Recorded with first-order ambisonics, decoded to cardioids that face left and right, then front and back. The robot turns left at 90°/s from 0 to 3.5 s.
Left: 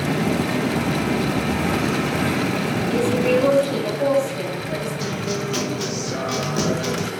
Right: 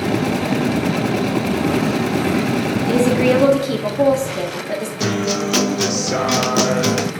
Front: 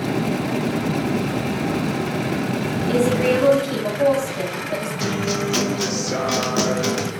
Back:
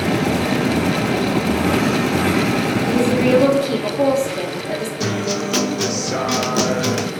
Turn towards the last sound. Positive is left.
turn(degrees=-100)